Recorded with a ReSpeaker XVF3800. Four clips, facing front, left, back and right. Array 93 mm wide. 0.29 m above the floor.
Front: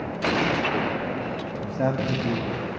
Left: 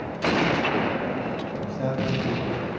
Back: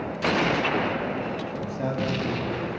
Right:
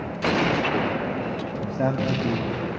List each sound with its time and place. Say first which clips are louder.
1.6 s a man speaking: right 4 dB, front 4 dB; 50° right, 1.6 m